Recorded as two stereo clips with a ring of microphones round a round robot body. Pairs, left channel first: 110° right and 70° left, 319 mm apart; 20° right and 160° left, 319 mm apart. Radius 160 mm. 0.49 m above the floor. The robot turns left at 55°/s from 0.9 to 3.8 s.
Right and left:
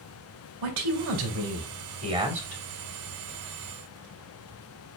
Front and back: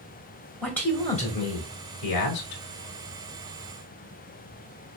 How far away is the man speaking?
About 2 m.